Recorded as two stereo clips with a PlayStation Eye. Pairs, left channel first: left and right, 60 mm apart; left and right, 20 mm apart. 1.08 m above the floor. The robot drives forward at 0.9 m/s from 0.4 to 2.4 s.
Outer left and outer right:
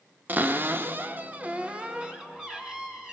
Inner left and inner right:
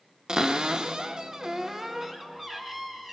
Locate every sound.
0.3 s a cupboard door: 35° right (ahead or behind), 0.8 m; by 3.1 s 15° right (ahead or behind), 1.6 m